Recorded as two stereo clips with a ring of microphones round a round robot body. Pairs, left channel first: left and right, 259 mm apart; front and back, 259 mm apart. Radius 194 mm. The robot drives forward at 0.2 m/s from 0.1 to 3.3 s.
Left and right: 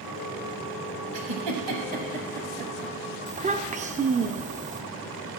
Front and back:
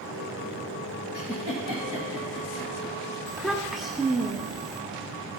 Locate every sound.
1.1 s a giggle: 100° right, 1.1 m; by 3.0 s 115° right, 1.2 m
3.3 s a child speaking: 90° right, 0.6 m